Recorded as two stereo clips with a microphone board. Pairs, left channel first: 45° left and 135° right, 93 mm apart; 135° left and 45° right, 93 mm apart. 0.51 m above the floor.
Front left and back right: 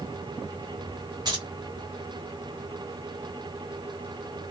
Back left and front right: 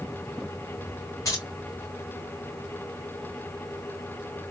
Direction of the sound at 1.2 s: 170° right.